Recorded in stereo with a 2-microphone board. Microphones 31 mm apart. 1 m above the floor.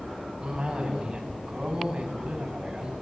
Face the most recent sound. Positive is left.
turn(degrees=-25)  # may be behind; listen again after turning